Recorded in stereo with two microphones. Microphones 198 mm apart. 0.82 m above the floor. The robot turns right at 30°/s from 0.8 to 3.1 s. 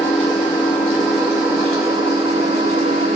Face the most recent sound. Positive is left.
turn(degrees=-120)